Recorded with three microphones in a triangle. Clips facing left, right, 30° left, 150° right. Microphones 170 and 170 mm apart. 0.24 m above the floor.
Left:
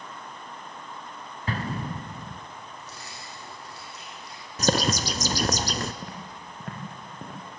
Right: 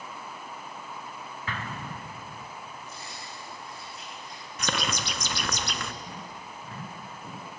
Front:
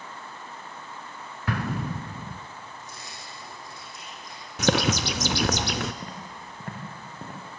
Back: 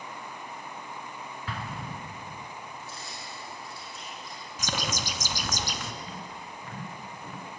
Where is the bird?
40° left, 0.7 m.